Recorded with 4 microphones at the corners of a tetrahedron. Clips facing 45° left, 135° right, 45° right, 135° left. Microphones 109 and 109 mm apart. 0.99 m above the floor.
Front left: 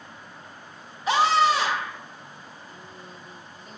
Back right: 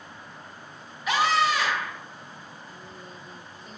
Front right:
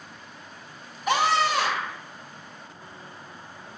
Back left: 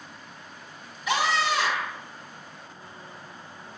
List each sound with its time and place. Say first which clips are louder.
1.1 s a scream: front left 3 dB, front right 3 dB; 10° right, 1.9 m